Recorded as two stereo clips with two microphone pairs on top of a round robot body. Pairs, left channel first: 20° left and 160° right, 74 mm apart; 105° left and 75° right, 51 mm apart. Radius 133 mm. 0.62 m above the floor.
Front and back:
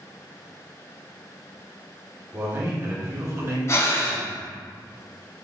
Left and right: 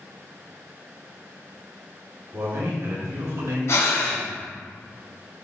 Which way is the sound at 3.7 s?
75° left.